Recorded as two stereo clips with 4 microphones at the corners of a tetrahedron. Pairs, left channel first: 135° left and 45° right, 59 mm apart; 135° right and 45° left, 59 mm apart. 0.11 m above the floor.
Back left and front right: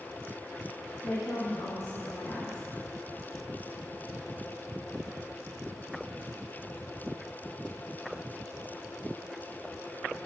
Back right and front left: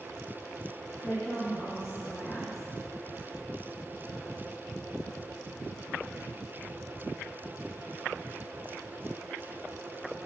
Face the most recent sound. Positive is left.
turn(degrees=155)